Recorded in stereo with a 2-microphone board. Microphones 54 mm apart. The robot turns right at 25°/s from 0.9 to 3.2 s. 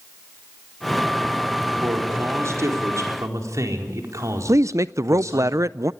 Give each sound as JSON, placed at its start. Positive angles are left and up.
{"t": 1.8, "sound": "a man speaking", "azimuth_deg": -130, "distance_m": 4.0}
{"t": 4.5, "sound": "a woman speaking", "side_deg": -75, "distance_m": 0.5}